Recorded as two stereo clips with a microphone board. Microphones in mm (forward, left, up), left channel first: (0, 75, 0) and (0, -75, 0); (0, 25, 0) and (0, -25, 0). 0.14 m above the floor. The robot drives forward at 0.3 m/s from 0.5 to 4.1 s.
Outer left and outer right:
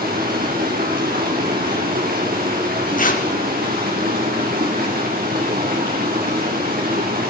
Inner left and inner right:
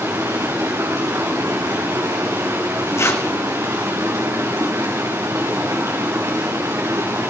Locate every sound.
0.0 s running water: 85° right, 6.5 m; by 7.3 s 80° right, 6.5 m
3.0 s tearing paper: 65° left (ahead or behind), 2.5 m